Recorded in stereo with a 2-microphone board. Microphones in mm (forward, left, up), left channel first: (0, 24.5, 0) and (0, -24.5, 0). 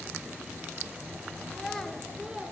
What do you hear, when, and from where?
1.5 s a child speaking: 15° left (ahead or behind), 2.5 m; by 2.5 s 20° right (ahead or behind), 2 m